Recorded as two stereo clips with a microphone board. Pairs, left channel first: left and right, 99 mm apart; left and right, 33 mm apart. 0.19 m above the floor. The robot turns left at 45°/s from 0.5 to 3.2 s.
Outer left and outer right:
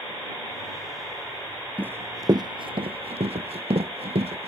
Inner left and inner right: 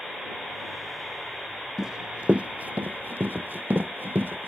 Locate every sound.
1.8 s running footsteps: 15° right (ahead or behind); by 4.5 s 85° right